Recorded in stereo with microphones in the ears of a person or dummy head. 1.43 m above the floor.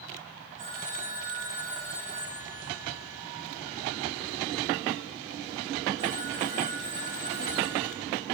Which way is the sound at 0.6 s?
45° right (ahead or behind).